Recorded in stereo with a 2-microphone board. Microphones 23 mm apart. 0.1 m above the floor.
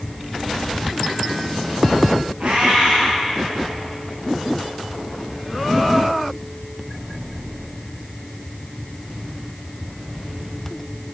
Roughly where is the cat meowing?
Right.